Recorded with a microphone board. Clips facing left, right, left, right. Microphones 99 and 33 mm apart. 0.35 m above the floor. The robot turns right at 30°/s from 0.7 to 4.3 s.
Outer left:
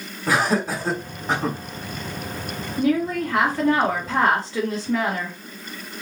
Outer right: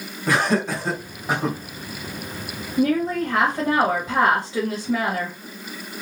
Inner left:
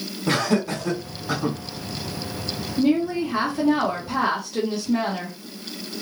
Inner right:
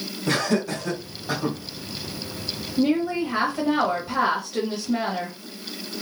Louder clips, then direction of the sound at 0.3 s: Even, inner left 1 dB; 5° left (ahead or behind).